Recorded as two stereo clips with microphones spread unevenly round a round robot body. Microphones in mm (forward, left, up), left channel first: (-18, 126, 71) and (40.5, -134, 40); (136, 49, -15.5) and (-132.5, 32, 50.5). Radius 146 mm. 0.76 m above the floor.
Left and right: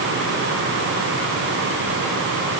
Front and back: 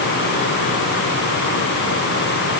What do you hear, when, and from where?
Only background noise.